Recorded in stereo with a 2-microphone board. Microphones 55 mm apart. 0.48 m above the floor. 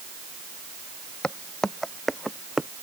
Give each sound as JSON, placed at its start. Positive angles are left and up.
{"t": 1.2, "sound": "footsteps", "side_deg": 15}